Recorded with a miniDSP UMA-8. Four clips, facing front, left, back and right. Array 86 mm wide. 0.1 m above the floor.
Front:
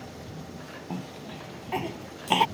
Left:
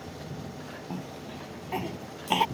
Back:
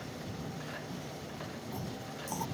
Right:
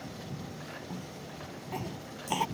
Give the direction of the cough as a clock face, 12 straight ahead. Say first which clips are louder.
Left 4 dB, front 5 dB; 11 o'clock.